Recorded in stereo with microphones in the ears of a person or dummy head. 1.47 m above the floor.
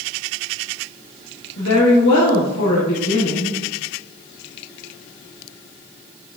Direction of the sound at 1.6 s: 70° left (ahead or behind).